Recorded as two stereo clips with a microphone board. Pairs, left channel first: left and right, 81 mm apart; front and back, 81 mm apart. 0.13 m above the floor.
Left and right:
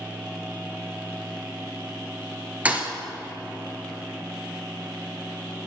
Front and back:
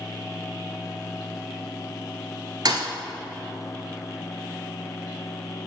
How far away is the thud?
About 0.9 m.